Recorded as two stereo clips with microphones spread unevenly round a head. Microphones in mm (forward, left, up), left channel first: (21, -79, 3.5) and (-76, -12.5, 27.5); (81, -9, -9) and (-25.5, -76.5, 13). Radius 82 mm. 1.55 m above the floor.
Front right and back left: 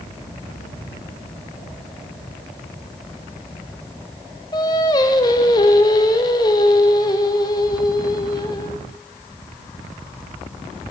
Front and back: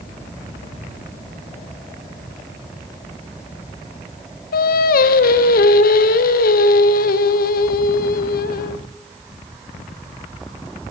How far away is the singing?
About 0.7 m.